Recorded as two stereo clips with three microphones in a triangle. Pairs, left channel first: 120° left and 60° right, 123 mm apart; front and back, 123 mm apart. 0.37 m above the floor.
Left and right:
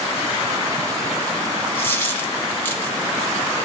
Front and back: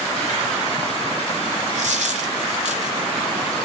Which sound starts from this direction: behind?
A dropped coin, at 1.8 s.